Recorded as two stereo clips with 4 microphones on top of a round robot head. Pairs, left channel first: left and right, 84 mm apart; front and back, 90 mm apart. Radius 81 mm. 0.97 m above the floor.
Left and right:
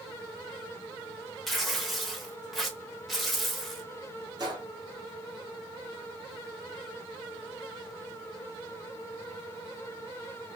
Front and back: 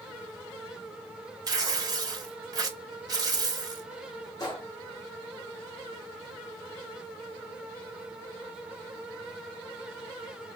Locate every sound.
1.5 s tearing paper: straight behind, 0.9 m
4.4 s a gunshot: 50° right, 1.4 m